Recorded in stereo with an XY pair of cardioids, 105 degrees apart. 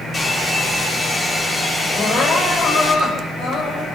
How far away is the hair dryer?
About 9 m.